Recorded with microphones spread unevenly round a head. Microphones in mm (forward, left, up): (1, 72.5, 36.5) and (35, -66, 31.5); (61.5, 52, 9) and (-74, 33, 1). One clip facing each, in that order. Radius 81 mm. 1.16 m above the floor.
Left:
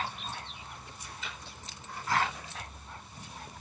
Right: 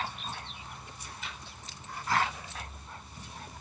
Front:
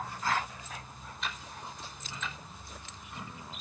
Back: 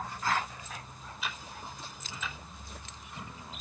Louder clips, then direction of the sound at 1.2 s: Even, even; 105° left.